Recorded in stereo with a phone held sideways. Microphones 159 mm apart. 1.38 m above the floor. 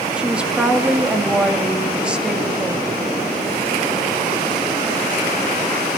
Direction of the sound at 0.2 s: 5° right (ahead or behind).